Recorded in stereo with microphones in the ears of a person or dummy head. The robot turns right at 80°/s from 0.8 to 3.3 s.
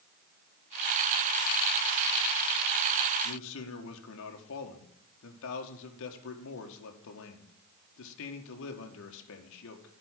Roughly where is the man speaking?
Left.